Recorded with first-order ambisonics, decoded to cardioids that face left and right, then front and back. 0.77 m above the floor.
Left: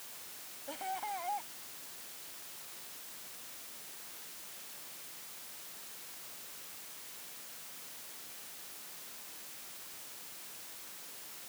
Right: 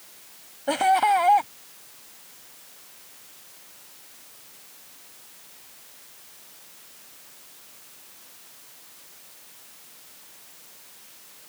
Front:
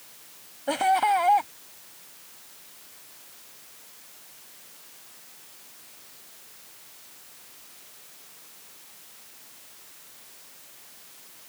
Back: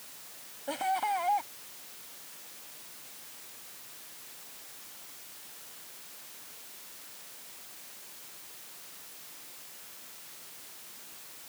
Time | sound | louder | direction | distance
0.7 | laughter | right 20 dB, front 9 dB | 60° right | ?